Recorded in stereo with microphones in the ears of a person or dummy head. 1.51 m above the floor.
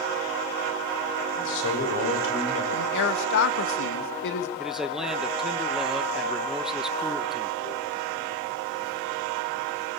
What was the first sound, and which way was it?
A man speaking, 70° left (ahead or behind).